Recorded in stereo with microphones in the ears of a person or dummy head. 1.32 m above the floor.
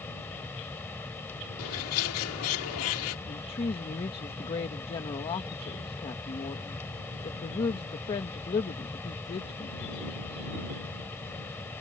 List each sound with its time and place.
0.0 s a fan: 10° left (ahead or behind)
1.6 s a bird: 80° left
3.3 s a woman speaking: 30° left (ahead or behind)